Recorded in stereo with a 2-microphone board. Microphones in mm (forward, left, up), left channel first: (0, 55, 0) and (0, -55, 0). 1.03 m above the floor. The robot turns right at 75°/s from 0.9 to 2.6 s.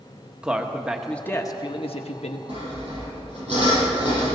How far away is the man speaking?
About 1.2 m.